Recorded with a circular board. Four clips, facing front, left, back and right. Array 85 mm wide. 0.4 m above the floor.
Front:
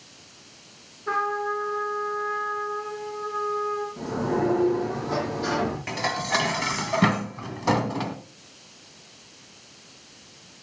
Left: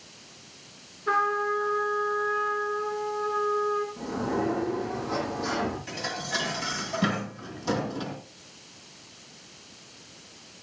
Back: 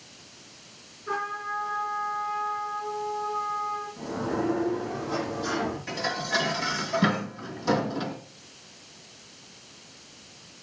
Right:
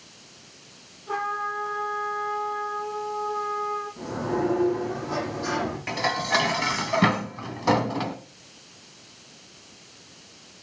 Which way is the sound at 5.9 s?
50° right.